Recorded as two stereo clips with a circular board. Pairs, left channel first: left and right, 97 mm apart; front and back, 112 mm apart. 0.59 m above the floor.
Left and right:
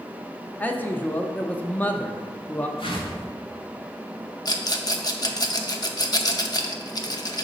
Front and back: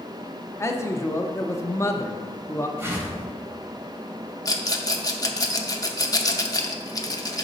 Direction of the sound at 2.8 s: 110° left.